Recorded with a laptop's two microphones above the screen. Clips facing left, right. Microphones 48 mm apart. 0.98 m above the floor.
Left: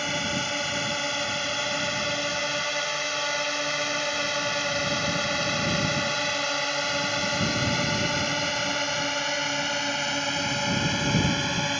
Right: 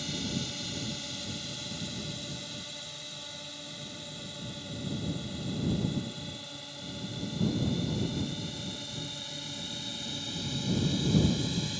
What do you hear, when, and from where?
0.0 s a drone: 55° left (ahead or behind); by 11.8 s 60° left (ahead or behind)